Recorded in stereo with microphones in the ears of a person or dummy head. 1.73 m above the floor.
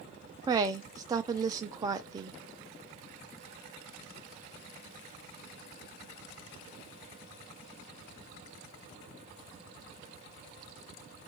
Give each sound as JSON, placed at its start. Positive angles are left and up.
{"t": 0.5, "sound": "a woman speaking", "side_deg": -20, "distance_m": 0.5}